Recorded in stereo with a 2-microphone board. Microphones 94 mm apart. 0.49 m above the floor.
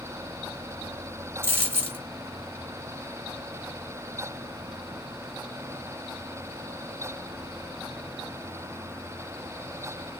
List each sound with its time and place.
1.4 s a dropped coin: 25° right (ahead or behind), 0.9 m